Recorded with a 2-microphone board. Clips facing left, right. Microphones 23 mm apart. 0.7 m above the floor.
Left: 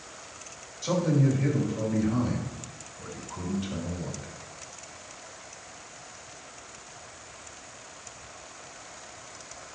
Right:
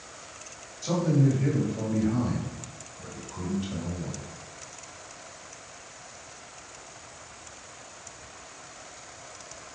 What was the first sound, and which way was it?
A man speaking, 15° left (ahead or behind).